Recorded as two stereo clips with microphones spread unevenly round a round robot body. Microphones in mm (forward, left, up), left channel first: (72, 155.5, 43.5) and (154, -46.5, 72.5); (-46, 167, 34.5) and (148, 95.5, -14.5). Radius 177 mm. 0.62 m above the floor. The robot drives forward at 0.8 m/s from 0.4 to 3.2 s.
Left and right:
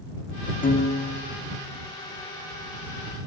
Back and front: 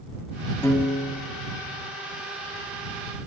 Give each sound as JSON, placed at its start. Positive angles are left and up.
{"t": 0.6, "sound": "a piano", "azimuth_deg": 70, "distance_m": 0.8}